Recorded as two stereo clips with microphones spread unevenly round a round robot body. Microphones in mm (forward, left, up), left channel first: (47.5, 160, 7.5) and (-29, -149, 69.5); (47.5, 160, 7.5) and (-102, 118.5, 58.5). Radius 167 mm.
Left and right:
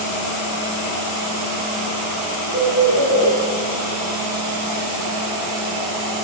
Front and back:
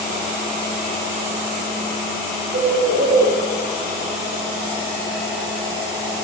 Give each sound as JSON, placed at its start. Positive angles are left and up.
{"t": 2.5, "sound": "a bird", "azimuth_deg": -175, "distance_m": 3.5}